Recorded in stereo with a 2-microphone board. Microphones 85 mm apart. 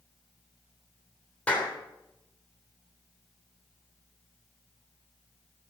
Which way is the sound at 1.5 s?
15° left (ahead or behind).